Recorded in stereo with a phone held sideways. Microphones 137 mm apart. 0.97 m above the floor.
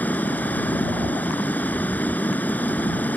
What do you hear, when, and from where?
0.0 s running water: 10° left (ahead or behind)